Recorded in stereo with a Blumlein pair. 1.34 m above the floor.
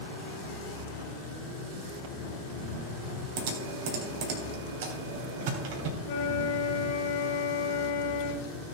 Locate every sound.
0.0 s an engine running: 50° left, 3.5 m
3.4 s typing on a keyboard: 50° right, 3 m
6.0 s a flute: 50° left, 2 m